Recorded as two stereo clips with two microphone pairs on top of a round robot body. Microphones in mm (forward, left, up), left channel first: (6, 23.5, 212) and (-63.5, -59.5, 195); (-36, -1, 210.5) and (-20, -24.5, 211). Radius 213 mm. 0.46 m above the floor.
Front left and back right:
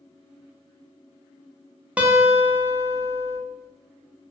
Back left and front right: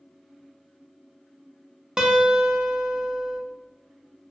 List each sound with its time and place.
2.0 s a guitar: 100° right, 0.7 m